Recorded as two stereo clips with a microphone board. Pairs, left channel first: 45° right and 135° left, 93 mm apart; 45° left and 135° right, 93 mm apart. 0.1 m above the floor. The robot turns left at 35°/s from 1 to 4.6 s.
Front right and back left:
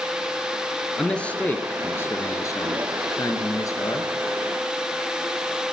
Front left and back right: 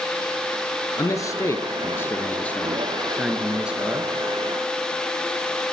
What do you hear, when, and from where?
1.0 s a man speaking: 30° left, 1.6 m; by 4.1 s 75° right, 1.6 m